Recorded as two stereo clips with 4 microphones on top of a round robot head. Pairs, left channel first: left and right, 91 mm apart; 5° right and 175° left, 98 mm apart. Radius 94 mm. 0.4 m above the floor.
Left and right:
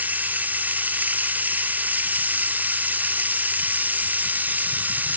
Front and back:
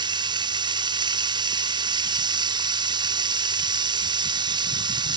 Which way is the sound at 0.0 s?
160° right.